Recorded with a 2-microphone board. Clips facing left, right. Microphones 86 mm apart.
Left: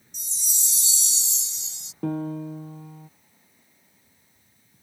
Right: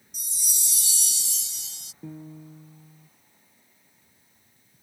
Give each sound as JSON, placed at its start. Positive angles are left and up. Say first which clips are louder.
{"t": 0.1, "sound": "a chime", "louder": "even", "side_deg": 25}
{"t": 2.0, "sound": "a piano", "louder": "left 13 dB", "side_deg": 75}